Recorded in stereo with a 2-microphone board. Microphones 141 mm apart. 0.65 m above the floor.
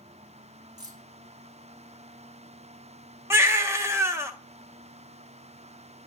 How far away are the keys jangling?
About 1.5 m.